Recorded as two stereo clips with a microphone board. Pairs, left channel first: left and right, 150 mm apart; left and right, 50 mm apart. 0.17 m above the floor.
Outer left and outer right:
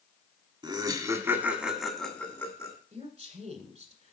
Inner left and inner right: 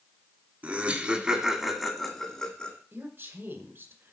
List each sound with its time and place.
0.6 s laughter: 30° right (ahead or behind), 1.6 m; by 2.8 s 25° left (ahead or behind), 1.4 m
2.9 s a woman speaking: 50° right (ahead or behind), 1.8 m